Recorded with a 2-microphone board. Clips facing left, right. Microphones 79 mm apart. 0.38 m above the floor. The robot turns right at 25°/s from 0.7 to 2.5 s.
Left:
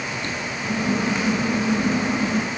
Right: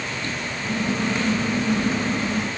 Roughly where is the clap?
No clap in this recording.